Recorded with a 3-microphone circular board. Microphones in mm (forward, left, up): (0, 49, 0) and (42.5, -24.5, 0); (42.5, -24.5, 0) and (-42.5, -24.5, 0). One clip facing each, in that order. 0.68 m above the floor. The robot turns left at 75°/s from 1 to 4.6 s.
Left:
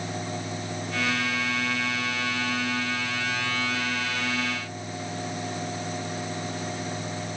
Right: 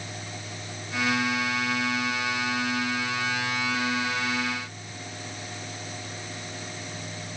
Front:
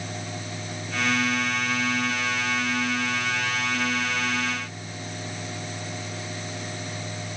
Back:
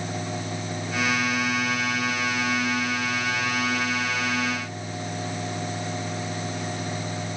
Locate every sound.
Only background noise.